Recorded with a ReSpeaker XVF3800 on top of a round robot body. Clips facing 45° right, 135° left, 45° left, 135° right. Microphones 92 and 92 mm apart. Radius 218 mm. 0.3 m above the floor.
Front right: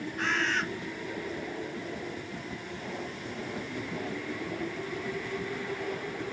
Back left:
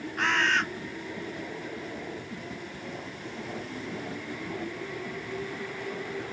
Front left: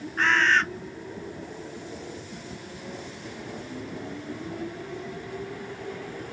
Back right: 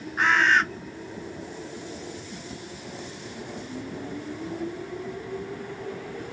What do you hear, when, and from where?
0.2 s a bird: 150° left, 0.8 m